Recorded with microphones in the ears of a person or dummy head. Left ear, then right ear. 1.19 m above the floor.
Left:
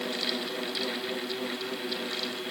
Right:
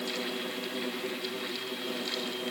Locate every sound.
Only background noise.